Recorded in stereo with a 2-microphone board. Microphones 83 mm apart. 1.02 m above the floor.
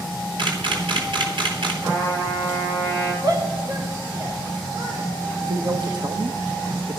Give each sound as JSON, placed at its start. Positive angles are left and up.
{"t": 0.4, "sound": "a camera shutter", "side_deg": -70, "distance_m": 3.0}
{"t": 1.8, "sound": "a trumpet", "side_deg": -70, "distance_m": 8.5}
{"t": 3.2, "sound": "a shout", "side_deg": -55, "distance_m": 3.0}
{"t": 5.5, "sound": "a man speaking", "side_deg": -60, "distance_m": 1.2}